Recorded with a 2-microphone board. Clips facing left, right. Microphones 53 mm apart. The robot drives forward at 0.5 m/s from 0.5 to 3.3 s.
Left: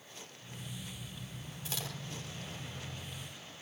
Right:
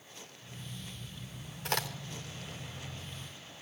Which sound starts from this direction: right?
A crack, at 1.6 s.